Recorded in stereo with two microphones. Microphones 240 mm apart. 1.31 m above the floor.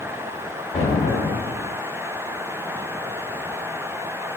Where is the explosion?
10° left (ahead or behind), 1.4 m.